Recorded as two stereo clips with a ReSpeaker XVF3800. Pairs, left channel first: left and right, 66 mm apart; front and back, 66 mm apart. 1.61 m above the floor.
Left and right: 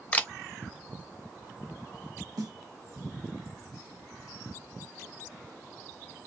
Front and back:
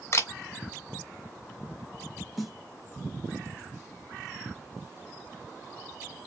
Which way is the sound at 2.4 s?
90° right.